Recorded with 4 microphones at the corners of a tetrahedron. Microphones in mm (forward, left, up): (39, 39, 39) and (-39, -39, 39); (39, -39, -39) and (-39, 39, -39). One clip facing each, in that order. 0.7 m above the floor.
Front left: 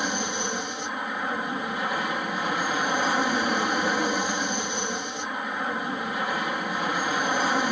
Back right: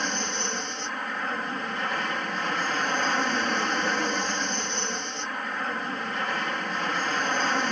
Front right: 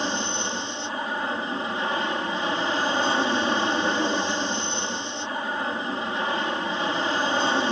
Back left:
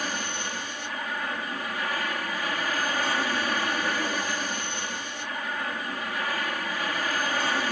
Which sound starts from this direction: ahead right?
An aircraft, at 0.0 s.